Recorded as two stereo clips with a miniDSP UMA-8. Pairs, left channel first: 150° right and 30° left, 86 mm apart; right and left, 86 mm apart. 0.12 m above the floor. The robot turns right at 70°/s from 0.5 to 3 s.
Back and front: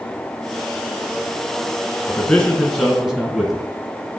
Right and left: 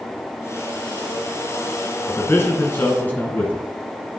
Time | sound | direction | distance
2.1 | a man speaking | 115° right | 1.3 m